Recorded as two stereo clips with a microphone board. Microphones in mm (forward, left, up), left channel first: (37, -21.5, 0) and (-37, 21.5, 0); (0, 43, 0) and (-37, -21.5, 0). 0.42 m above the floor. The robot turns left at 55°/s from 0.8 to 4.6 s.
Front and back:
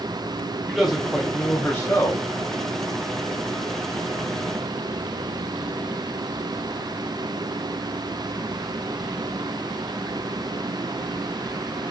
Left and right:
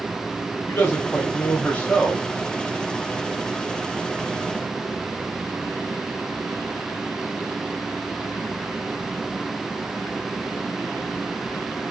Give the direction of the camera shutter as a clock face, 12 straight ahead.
I don't hear a camera shutter.